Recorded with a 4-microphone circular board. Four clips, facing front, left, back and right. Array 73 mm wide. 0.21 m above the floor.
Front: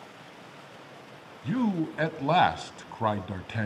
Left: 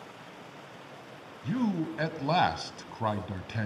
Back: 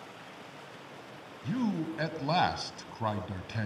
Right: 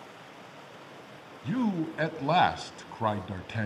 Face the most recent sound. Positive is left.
turn(degrees=-20)